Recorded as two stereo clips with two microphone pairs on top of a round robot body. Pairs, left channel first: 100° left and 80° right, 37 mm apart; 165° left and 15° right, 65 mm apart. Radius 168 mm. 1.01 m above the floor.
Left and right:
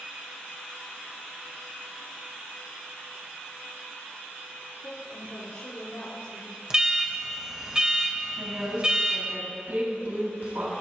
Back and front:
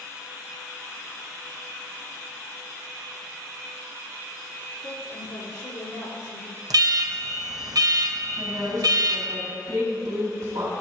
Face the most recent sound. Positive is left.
turn(degrees=-50)